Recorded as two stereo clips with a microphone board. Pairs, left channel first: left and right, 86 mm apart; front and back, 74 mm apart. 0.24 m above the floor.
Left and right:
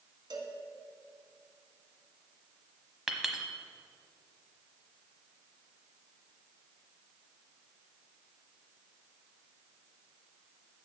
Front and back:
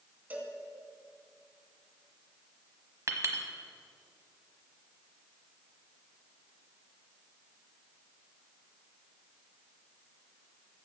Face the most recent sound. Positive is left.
turn(degrees=-175)